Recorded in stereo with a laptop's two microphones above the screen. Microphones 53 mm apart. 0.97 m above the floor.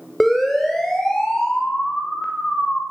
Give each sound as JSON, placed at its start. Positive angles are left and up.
{"t": 0.2, "sound": "a siren", "side_deg": 0, "distance_m": 6.0}